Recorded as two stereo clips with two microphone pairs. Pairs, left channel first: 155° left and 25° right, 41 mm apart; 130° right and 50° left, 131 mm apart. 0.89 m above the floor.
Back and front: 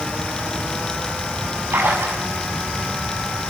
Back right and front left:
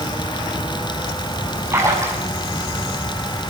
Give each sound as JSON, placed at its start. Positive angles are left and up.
{"t": 1.7, "sound": "a splash", "azimuth_deg": -20, "distance_m": 7.0}